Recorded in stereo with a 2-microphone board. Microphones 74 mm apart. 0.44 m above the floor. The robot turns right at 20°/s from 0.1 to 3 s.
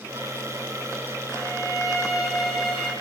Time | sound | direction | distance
1.3 | a violin | 35° right | 5 m